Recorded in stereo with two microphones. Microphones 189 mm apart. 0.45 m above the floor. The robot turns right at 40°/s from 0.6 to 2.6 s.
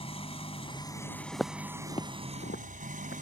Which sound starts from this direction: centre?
Footsteps, at 1.3 s.